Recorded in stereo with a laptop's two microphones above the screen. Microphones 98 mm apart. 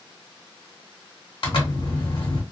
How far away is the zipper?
About 1.4 m.